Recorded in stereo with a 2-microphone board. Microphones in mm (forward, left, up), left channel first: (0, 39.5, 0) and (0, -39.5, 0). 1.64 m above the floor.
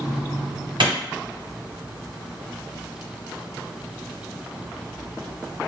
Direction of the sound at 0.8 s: 75° right (ahead or behind).